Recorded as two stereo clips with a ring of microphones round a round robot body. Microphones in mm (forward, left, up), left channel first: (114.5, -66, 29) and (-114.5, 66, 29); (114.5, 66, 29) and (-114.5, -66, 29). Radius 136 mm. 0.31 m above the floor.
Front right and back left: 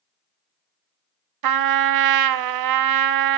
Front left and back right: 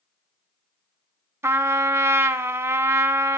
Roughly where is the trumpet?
Behind left.